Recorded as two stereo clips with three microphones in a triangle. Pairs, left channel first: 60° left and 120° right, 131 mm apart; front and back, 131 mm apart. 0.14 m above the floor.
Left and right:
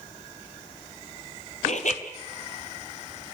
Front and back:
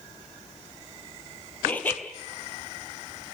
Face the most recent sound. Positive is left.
turn(degrees=75)